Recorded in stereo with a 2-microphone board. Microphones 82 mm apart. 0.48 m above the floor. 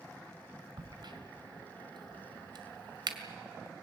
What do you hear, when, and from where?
0.8 s a crack: 65° right (ahead or behind), 1.9 m